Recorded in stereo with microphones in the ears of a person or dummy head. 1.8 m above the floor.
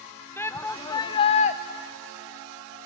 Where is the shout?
10° left (ahead or behind), 0.9 m; by 1.6 s 35° left (ahead or behind), 0.6 m.